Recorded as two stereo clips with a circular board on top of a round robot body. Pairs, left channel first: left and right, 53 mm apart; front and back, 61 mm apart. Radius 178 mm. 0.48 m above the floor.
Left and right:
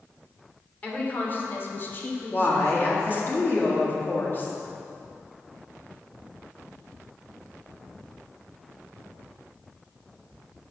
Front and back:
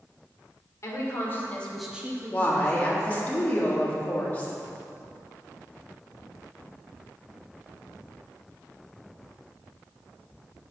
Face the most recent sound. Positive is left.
turn(degrees=55)